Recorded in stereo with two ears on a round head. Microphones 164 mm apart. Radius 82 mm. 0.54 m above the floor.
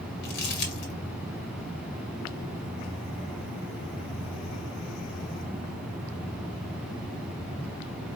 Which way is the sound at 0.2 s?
60° left (ahead or behind).